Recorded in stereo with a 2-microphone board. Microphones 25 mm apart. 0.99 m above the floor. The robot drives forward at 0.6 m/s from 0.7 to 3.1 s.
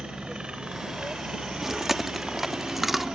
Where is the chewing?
15° right (ahead or behind); by 3.1 s 10° right (ahead or behind).